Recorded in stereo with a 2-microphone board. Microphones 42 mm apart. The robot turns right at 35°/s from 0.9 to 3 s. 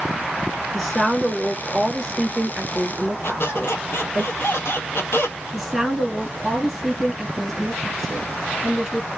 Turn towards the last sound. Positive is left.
turn(degrees=-5)  # may be behind; listen again after turning